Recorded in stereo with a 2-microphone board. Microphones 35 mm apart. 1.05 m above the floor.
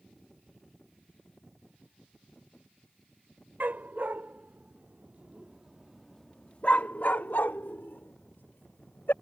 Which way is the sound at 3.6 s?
60° right (ahead or behind).